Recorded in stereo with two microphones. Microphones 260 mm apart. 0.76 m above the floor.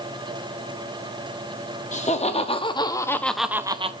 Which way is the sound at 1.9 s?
25° left (ahead or behind).